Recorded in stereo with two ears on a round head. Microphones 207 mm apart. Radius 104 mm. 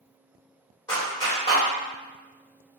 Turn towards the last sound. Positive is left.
turn(degrees=20)  # may be behind; listen again after turning